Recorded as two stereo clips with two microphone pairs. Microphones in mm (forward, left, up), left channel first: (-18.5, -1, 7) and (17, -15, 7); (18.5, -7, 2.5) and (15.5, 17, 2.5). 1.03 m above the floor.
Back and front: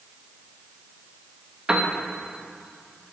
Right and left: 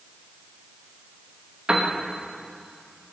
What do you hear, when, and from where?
1.7 s a piano: 50° left, 1.7 m